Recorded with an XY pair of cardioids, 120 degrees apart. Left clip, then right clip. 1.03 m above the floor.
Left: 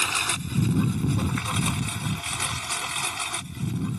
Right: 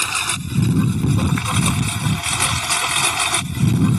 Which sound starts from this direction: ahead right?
A lawn mower, at 0.0 s.